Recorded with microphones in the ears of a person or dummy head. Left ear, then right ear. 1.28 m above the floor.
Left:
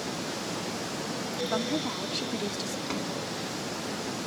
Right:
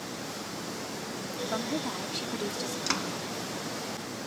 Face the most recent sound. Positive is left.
turn(degrees=-45)  # may be behind; listen again after turning